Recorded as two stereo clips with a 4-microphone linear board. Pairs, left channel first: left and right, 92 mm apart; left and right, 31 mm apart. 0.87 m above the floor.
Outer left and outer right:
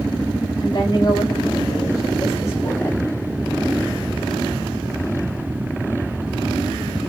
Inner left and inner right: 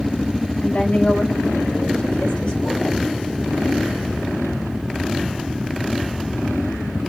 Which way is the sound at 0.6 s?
50° left (ahead or behind).